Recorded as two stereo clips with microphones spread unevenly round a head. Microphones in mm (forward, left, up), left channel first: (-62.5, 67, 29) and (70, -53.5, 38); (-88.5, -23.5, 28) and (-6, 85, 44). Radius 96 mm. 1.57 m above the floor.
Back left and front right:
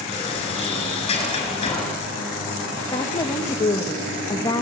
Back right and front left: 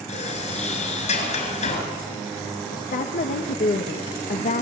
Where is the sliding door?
160° right, 6 m.